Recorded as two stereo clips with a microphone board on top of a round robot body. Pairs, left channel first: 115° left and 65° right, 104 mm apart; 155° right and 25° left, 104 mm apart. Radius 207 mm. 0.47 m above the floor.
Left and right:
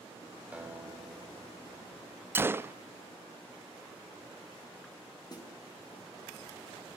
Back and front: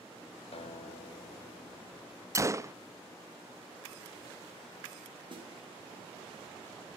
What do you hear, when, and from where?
0.5 s a guitar: 145° right, 3 m
2.4 s a gunshot: 15° right, 1.1 m
5.3 s a snare drum: 60° left, 8.5 m